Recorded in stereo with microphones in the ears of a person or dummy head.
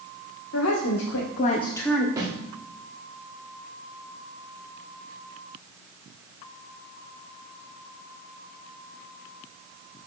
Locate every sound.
0.5 s a woman speaking: 85° left, 1.2 m; by 2.1 s 5° right (ahead or behind), 0.9 m
2.2 s a snare drum: 15° right (ahead or behind), 2.0 m